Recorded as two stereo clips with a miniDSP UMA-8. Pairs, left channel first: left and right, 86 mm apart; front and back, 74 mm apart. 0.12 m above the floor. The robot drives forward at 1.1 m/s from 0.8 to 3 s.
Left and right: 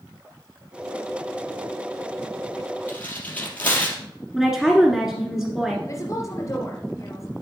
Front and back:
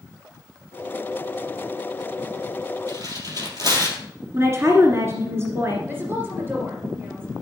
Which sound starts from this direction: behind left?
A woman speaking, at 5.9 s.